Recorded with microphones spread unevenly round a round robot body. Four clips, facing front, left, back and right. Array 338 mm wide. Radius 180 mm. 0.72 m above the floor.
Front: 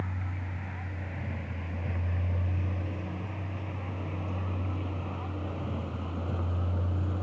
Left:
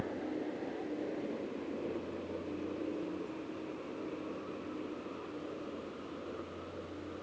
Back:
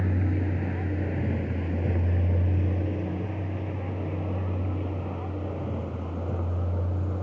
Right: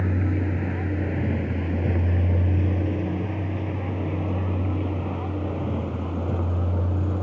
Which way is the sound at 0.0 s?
115° right.